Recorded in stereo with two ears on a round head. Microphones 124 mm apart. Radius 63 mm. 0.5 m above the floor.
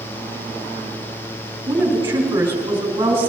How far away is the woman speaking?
About 4.5 m.